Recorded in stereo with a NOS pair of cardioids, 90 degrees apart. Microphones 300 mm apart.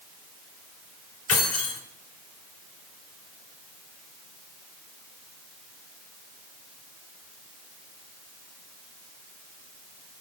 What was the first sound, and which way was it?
Keys jangling, 55° left.